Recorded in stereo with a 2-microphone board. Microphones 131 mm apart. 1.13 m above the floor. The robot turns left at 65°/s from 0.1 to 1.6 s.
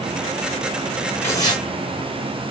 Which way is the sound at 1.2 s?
15° left (ahead or behind).